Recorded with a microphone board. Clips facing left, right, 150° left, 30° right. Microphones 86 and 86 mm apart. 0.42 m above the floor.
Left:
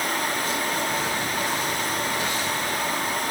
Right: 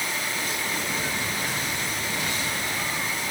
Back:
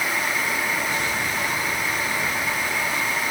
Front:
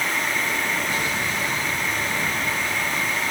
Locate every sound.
Only background noise.